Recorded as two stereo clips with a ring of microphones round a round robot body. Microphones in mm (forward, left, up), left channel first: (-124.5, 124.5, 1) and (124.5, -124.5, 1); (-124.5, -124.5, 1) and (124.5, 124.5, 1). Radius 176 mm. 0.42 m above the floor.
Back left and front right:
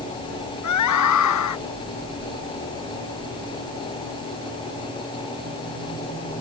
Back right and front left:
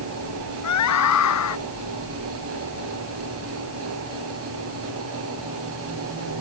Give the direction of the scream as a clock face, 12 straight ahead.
6 o'clock.